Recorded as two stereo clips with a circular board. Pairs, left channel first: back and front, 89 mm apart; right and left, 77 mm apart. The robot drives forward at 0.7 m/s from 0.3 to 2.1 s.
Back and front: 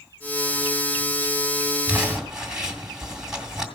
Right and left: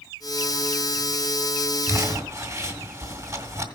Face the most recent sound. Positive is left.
turn(degrees=80)